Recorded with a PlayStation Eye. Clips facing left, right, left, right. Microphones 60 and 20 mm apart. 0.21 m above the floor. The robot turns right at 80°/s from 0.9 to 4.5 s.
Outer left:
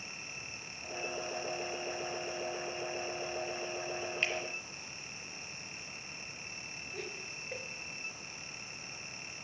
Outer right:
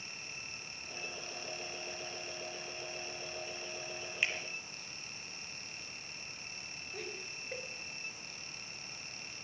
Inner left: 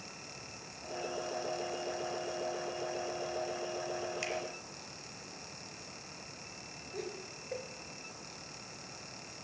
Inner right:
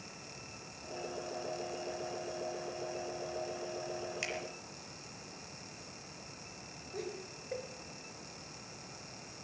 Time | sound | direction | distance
4.2 | a finger snap | 10° right (ahead or behind) | 4 m
6.9 | laughter | centre (ahead or behind) | 3 m